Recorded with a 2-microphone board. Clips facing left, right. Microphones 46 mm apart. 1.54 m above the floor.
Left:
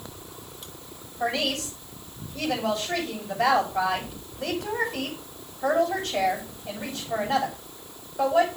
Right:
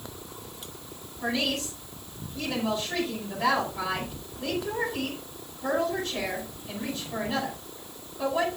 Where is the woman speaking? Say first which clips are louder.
Left 2 dB; 80° left, 7.5 m.